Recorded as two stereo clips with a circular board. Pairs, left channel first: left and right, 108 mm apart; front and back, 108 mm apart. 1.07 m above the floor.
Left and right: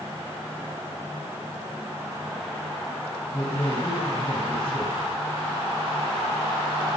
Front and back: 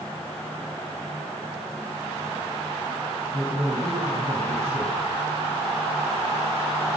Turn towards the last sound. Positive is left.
turn(degrees=150)